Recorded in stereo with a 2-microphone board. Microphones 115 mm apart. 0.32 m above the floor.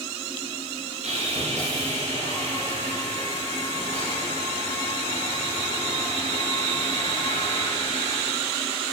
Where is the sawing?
85° right, 9.5 m.